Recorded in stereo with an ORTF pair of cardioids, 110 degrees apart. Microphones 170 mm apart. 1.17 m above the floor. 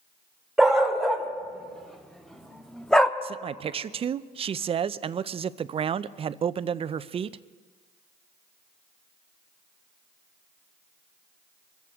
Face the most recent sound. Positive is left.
turn(degrees=-35)